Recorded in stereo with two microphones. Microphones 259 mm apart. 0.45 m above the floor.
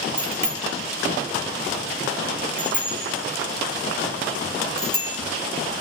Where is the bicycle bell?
10° left (ahead or behind), 4 m; by 5.2 s 65° left (ahead or behind), 2.5 m.